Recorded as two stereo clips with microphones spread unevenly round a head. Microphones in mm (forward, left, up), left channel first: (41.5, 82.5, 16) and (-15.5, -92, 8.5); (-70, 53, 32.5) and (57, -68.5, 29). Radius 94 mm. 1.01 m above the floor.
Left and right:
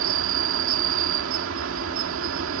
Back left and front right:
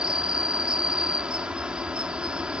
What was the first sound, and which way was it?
An insect, 130° right.